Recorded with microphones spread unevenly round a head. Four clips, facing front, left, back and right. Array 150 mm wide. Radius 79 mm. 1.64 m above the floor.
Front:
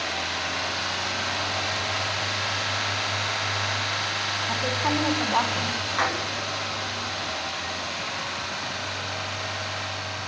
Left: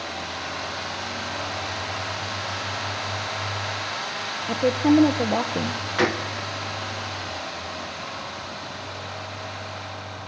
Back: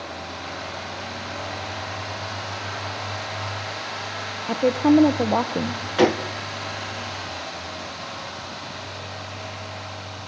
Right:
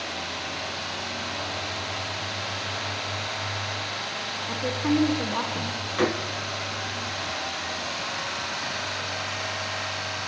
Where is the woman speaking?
150° left, 1.3 m.